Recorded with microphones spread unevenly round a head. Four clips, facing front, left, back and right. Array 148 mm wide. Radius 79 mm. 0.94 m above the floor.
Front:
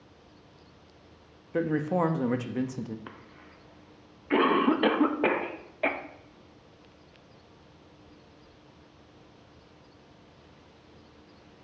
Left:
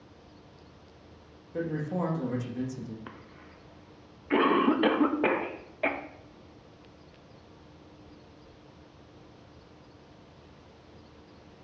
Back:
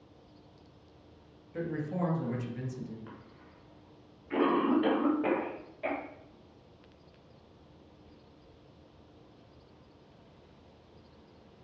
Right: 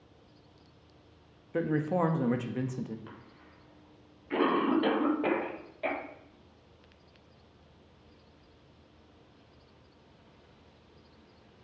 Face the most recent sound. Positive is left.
turn(degrees=30)